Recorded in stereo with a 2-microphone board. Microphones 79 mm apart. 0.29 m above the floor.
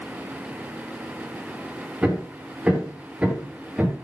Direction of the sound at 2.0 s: 15° right (ahead or behind).